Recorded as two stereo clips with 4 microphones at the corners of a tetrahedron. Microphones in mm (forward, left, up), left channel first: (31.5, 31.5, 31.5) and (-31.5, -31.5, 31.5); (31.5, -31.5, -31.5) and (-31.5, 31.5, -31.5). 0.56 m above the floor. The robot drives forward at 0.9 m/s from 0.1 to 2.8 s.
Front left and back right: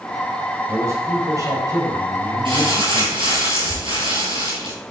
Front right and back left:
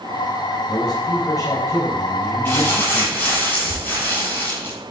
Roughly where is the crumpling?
Behind right.